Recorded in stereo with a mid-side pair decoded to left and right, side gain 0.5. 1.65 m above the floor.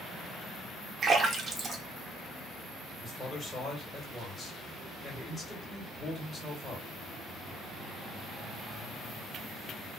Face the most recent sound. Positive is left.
turn(degrees=20)